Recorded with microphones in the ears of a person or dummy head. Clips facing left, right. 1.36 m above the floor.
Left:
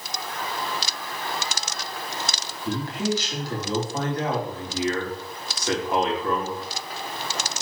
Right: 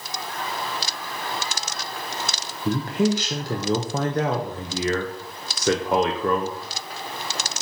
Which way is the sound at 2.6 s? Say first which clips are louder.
Right 5 dB; 45° right (ahead or behind).